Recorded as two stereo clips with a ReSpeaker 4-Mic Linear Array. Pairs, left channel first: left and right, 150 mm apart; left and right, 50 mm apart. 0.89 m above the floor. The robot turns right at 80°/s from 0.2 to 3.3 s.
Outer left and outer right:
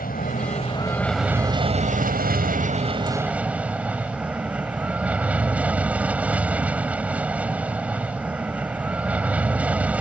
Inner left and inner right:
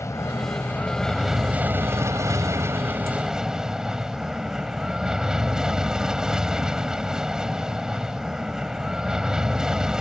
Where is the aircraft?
100° left; by 10.0 s 10° right.